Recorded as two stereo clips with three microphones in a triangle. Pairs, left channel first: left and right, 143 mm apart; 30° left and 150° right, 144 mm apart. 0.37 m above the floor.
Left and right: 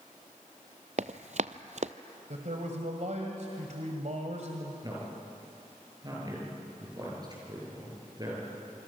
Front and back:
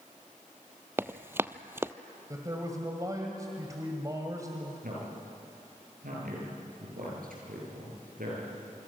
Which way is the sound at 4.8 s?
150° right.